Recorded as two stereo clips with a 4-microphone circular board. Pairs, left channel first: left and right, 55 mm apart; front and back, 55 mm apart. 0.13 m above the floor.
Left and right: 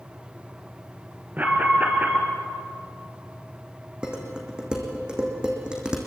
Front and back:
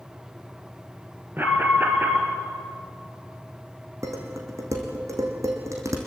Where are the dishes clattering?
165° right, 4 m.